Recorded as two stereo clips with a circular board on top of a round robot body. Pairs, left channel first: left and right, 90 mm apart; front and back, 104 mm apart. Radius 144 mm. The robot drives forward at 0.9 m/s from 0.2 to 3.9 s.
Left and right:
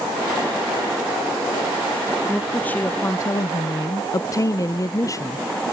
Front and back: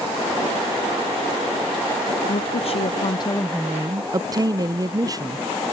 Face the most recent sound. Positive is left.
turn(degrees=135)